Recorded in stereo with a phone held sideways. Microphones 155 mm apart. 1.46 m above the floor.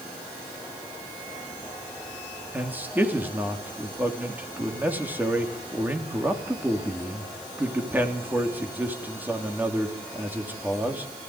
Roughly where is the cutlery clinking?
I don't hear cutlery clinking.